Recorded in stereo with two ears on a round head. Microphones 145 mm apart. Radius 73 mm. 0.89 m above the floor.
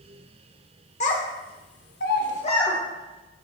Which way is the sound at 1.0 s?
45° left (ahead or behind).